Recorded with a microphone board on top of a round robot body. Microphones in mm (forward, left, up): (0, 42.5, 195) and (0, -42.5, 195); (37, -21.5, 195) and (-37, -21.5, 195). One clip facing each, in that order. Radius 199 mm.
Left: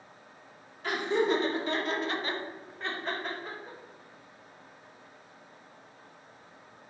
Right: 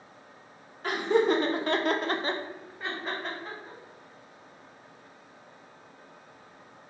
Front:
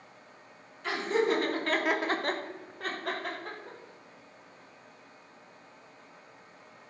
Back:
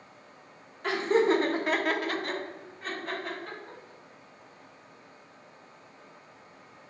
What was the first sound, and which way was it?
Laughter, 135° right.